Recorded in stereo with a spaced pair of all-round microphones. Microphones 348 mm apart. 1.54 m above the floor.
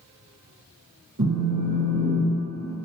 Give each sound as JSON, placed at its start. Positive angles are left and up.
{"t": 1.2, "sound": "a phone buzzing", "side_deg": -50, "distance_m": 1.0}